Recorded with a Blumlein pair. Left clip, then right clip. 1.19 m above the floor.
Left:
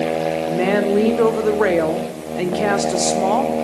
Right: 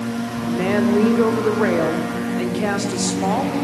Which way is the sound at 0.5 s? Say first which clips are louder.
Even; 10° left.